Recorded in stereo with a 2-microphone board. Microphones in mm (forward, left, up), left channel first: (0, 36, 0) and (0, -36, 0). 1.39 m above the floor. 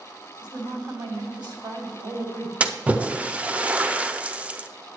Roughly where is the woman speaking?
Right.